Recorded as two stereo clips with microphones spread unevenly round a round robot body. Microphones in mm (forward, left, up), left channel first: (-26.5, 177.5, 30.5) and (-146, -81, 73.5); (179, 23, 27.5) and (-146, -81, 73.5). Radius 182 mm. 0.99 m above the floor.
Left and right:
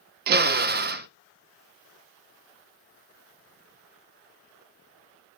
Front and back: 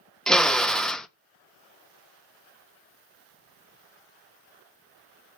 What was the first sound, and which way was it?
A drill, 60° right.